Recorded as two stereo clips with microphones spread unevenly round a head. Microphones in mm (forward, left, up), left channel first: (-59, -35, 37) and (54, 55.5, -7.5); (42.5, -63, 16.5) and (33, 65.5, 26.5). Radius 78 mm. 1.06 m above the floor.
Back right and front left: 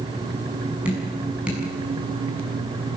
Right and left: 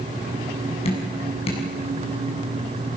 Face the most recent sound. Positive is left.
turn(degrees=-45)